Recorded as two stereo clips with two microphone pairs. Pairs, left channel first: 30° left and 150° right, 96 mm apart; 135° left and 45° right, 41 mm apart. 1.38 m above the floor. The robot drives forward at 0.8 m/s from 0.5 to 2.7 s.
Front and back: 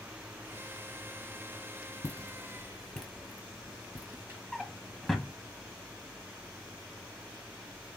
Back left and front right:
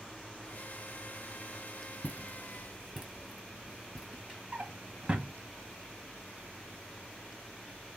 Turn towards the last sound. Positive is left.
turn(degrees=-65)